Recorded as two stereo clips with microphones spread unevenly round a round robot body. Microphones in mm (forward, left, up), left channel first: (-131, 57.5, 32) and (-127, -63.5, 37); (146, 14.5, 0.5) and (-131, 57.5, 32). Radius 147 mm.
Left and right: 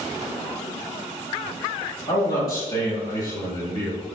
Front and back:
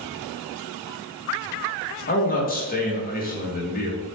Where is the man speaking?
40° left, 1.1 m.